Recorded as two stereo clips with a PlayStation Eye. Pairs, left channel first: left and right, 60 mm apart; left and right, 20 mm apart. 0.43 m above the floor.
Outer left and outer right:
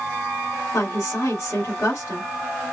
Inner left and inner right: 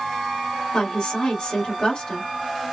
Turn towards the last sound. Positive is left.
turn(degrees=55)  # may be behind; listen again after turning